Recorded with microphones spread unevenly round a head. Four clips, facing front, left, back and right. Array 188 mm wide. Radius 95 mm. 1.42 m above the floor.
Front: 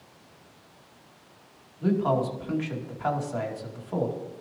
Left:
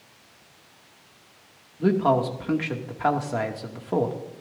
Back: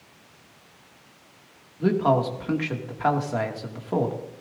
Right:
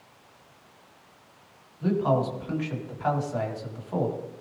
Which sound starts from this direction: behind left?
A man speaking, at 1.8 s.